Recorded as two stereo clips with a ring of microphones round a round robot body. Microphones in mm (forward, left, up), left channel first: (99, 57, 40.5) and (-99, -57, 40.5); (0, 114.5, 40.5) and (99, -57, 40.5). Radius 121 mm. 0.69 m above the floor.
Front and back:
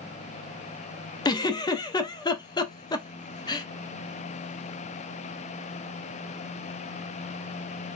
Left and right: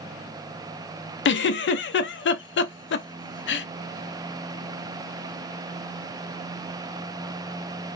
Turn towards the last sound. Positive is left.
turn(degrees=100)